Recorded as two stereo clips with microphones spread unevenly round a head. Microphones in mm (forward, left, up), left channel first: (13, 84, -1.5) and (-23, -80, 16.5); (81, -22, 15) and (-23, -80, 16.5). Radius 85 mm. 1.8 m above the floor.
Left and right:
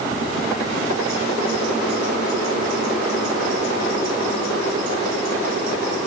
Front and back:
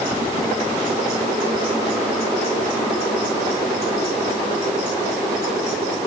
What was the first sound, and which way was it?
Only background noise.